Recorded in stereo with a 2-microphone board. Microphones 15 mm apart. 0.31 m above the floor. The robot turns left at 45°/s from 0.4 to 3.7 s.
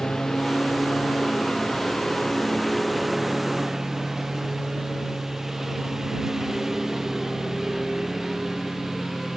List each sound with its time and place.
0.0 s a lawn mower: 120° left; by 9.4 s 25° right